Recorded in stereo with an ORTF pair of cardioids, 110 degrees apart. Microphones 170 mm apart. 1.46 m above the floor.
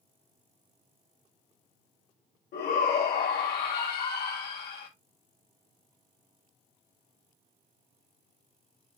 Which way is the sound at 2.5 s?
60° left.